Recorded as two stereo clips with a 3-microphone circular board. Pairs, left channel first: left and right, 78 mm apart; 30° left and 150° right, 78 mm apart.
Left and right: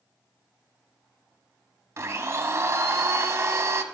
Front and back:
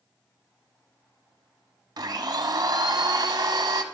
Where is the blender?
140° right, 0.8 m.